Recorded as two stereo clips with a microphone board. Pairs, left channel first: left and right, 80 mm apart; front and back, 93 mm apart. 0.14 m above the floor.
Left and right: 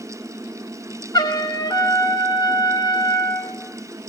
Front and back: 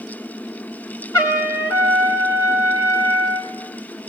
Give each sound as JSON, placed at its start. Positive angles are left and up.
{"t": 1.1, "sound": "a trumpet", "azimuth_deg": 50, "distance_m": 3.5}